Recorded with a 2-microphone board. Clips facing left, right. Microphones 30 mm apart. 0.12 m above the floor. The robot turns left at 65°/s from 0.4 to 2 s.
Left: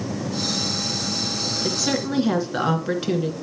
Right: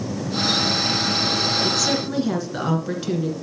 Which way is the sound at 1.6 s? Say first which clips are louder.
Right 2 dB; 10° left (ahead or behind).